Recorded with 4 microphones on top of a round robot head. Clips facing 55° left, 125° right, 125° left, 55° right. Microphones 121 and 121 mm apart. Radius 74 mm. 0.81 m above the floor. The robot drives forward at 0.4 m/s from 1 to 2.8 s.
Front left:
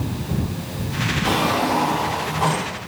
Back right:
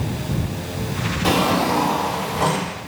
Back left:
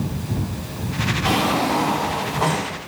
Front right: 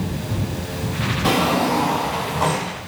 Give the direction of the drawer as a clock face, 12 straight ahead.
3 o'clock.